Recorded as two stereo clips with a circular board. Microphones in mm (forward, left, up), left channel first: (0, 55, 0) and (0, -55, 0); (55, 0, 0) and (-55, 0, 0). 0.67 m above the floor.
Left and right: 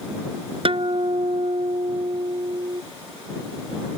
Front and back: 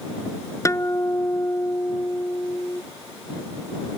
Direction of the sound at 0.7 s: 60° right.